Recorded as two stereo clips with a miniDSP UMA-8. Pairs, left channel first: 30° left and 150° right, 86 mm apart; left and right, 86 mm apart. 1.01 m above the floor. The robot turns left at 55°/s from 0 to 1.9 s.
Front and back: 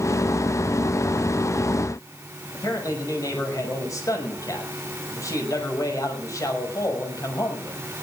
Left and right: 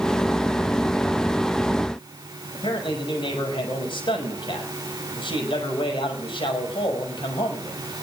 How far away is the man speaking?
About 6 m.